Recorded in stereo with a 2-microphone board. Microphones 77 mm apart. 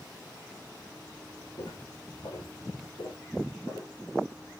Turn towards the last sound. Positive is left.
turn(degrees=80)